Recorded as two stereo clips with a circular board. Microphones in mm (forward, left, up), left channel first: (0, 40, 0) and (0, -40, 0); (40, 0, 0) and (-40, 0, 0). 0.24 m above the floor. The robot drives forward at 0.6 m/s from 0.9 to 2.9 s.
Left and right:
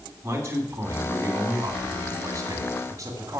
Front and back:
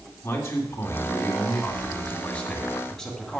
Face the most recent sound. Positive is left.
turn(degrees=-75)